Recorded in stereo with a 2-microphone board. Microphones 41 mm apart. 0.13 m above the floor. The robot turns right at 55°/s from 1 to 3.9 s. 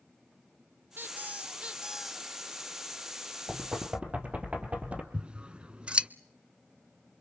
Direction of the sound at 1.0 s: 60° right.